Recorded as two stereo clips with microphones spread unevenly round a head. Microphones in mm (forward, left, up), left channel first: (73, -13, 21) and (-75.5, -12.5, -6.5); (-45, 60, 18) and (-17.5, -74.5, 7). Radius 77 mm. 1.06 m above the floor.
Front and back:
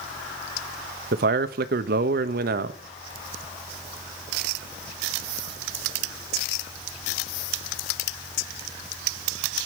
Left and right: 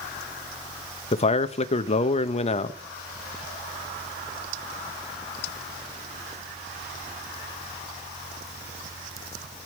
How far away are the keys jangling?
I don't hear keys jangling.